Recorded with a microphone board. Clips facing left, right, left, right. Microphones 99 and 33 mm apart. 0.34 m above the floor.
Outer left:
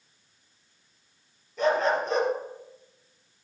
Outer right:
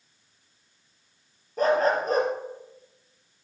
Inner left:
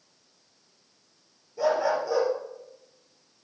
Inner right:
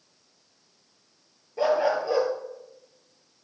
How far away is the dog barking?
About 2.5 m.